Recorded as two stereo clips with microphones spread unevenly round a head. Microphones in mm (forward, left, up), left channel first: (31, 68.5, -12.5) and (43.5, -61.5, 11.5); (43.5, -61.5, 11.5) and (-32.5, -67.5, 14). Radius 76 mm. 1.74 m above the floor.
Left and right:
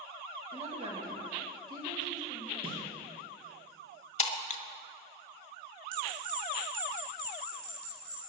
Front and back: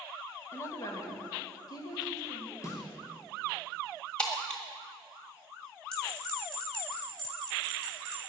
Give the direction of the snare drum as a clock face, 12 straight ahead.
1 o'clock.